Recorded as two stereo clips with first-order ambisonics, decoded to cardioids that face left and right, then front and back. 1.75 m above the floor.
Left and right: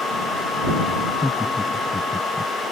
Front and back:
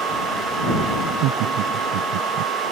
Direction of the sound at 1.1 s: 170° left.